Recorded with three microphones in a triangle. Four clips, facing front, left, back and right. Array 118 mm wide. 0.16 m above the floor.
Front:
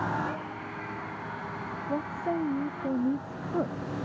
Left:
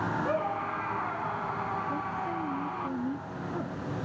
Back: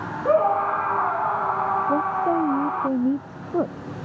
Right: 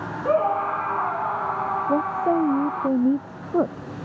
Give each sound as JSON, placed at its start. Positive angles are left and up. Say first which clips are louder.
{"t": 0.2, "sound": "a scream", "louder": "right 9 dB, back 17 dB", "azimuth_deg": -150}
{"t": 1.9, "sound": "a woman speaking", "louder": "right 11 dB, back 9 dB", "azimuth_deg": -110}